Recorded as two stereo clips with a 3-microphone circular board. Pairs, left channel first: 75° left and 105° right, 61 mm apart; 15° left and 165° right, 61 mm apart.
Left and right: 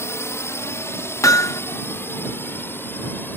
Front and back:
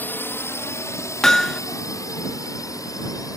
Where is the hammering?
95° left.